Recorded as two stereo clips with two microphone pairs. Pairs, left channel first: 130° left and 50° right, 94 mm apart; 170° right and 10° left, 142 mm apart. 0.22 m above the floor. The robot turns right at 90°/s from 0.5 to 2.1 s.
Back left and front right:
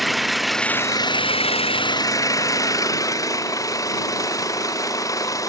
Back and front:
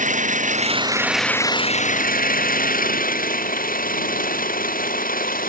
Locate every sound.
0.0 s an engine running: 40° left; by 5.5 s 175° right